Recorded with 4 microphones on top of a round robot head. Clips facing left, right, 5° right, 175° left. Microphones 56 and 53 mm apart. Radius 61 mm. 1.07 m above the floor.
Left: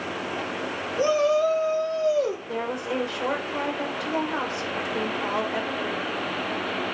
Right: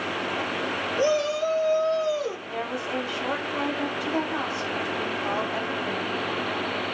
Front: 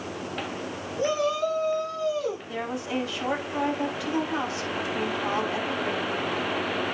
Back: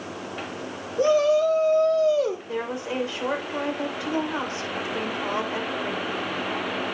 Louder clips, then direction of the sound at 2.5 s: Left 1 dB, back 2 dB; 120° left.